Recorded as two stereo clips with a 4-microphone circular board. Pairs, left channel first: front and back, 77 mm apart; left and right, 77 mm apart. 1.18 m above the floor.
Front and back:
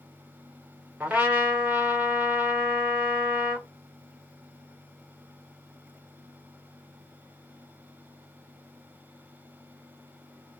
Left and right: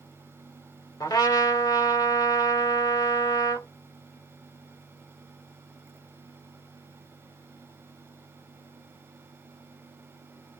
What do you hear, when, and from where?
1.0 s a trumpet: 110° left, 1.8 m